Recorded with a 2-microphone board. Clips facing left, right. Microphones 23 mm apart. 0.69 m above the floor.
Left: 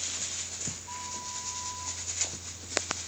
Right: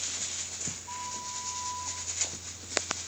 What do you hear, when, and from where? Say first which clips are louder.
0.9 s a flute: right 1 dB; 10° right (ahead or behind), 1.3 m